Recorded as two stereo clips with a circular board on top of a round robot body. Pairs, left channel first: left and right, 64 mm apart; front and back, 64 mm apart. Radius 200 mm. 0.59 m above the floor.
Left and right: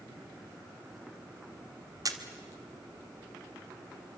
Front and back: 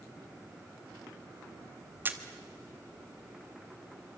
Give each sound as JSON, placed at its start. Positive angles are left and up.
{"t": 2.0, "sound": "a camera shutter", "azimuth_deg": -120, "distance_m": 1.8}